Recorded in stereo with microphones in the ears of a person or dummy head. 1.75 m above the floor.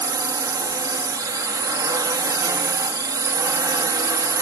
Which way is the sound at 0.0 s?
20° right (ahead or behind).